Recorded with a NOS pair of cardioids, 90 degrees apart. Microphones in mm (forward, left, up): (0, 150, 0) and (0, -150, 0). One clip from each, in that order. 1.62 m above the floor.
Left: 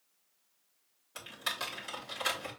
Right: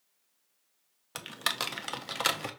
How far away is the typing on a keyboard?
About 0.9 m.